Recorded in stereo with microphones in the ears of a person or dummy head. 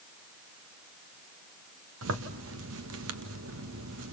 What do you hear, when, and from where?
2.0 s a zipper: 85° right, 1.7 m